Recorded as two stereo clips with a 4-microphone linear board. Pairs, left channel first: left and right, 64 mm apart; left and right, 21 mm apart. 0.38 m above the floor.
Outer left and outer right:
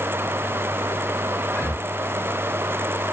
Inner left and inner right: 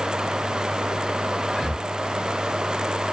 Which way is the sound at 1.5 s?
30° left (ahead or behind).